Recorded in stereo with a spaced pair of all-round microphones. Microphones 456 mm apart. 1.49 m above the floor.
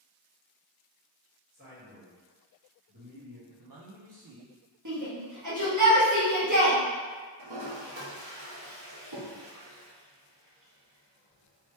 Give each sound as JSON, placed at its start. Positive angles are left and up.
{"t": 1.5, "sound": "a man speaking", "side_deg": -20, "distance_m": 1.8}
{"t": 3.5, "sound": "a man speaking", "side_deg": -50, "distance_m": 0.5}
{"t": 4.8, "sound": "a shout", "side_deg": -40, "distance_m": 1.0}
{"t": 7.4, "sound": "a toilet flushing", "side_deg": -55, "distance_m": 1.6}